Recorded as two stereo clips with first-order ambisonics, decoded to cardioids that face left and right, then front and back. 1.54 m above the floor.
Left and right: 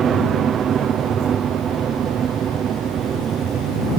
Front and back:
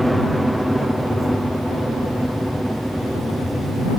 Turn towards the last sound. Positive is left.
turn(degrees=-95)